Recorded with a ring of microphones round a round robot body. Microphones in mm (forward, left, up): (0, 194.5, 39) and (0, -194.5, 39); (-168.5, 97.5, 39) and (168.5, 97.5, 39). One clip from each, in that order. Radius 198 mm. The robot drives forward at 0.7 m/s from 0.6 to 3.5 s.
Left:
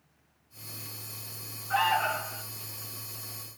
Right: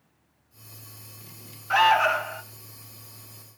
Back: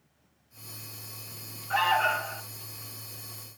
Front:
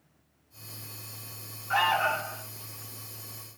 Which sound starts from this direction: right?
An alarm, at 1.7 s.